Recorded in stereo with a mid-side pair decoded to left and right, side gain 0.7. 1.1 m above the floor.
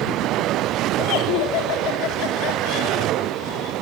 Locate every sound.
1.0 s laughter: 65° left, 3.5 m